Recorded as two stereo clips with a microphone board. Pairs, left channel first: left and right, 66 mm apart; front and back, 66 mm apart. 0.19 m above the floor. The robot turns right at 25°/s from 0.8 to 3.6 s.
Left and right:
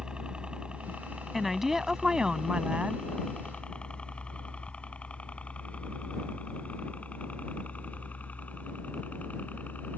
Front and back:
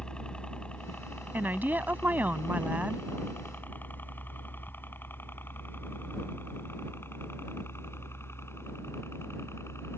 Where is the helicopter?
45° right; by 10.0 s 35° left.